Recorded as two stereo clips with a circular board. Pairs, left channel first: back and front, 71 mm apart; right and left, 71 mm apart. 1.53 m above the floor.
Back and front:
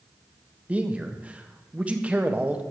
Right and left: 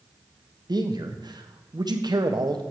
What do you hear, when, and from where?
0.7 s a man speaking: 70° left, 1.2 m